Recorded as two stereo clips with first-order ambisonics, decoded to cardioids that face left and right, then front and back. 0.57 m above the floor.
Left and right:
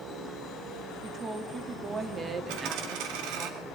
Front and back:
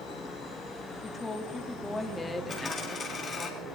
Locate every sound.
1.0 s a woman speaking: 55° right, 1.0 m
2.5 s a dropped coin: 70° right, 2.5 m